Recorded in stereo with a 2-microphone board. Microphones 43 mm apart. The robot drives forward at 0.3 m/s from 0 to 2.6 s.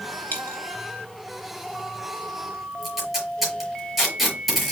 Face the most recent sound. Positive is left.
turn(degrees=0)  # may be behind; listen again after turning